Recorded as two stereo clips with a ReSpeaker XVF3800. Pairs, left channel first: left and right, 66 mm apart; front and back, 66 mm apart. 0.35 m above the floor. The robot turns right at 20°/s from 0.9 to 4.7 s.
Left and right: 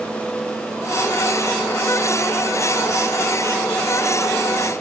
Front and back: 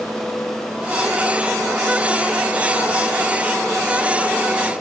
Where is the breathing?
I don't hear breathing.